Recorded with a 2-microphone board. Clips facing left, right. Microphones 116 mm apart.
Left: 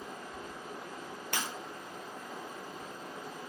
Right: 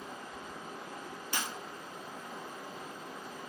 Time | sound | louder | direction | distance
0.0 | running water | left 1 dB | 50° left (ahead or behind) | 1.6 m
1.3 | breaking glass | left 1 dB | 70° left (ahead or behind) | 1.2 m